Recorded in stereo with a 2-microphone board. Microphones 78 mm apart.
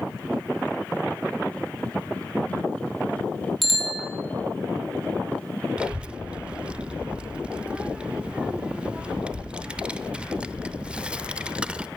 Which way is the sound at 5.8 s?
15° right (ahead or behind).